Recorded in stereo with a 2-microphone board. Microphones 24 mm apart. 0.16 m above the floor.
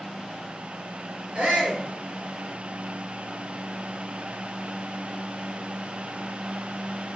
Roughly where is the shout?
Right.